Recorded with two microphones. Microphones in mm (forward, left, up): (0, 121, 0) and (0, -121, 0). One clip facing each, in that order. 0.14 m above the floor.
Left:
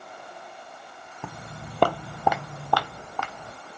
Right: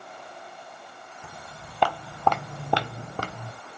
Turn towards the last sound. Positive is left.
turn(degrees=-45)  # may be behind; listen again after turning